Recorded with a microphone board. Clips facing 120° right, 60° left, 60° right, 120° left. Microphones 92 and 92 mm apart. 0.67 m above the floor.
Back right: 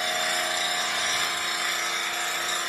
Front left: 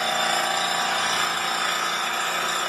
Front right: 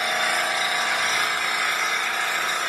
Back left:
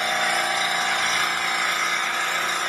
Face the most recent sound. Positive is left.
turn(degrees=30)